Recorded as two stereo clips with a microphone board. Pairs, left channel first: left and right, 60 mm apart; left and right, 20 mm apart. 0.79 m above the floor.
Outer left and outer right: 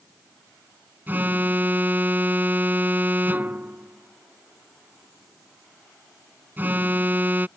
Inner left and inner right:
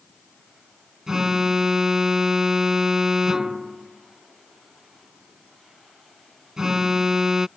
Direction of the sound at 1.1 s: 30° right (ahead or behind).